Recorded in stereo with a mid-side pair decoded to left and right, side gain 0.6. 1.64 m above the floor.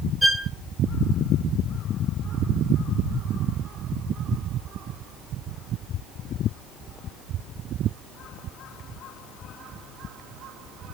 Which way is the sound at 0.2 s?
5° right.